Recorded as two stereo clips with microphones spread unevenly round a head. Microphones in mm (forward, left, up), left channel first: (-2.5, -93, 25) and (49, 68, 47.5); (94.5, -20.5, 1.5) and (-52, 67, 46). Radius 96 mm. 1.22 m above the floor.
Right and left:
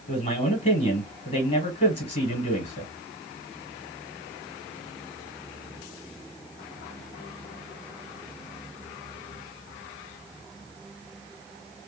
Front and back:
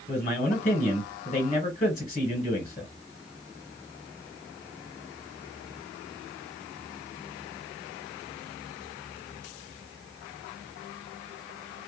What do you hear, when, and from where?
0.1 s a man speaking: 70° right, 1.1 m